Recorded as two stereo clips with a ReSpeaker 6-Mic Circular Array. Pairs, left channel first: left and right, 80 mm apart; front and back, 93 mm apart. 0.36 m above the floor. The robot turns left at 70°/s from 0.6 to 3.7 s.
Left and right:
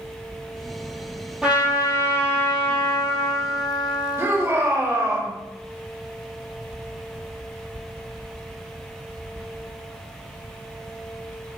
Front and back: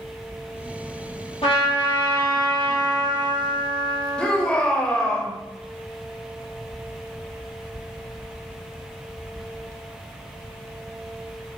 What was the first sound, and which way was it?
A trumpet, 5° right.